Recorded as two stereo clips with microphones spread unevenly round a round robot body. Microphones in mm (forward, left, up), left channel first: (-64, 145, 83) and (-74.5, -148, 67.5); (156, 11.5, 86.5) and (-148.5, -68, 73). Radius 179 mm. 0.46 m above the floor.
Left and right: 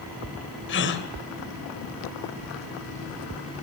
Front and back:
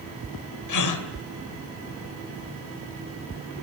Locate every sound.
0.7 s a gasp: 35° left, 3 m